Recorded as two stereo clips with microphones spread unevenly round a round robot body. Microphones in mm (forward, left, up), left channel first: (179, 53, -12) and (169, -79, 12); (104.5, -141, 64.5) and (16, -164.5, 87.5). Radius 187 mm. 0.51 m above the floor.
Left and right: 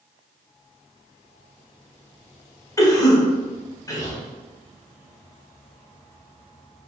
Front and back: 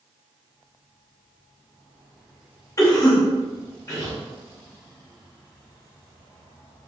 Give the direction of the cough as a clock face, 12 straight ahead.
11 o'clock.